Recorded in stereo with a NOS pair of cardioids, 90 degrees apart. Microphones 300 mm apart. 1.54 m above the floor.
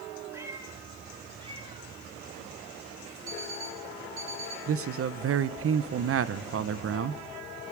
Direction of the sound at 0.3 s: 10° right.